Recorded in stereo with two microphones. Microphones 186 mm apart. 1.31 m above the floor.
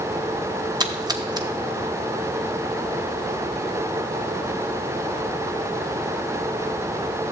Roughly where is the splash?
Right.